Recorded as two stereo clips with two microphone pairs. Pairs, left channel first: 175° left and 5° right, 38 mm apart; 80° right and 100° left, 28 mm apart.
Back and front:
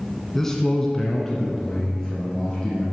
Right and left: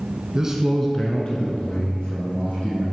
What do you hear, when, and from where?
0.3 s a man speaking: 105° left, 1.2 m; by 2.8 s 100° right, 3.5 m